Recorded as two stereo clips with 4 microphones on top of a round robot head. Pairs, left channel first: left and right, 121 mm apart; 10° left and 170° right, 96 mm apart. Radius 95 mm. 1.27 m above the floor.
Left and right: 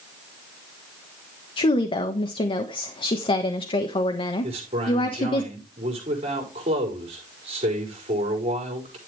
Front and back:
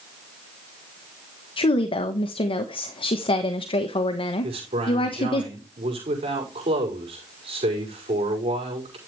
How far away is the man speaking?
About 5 m.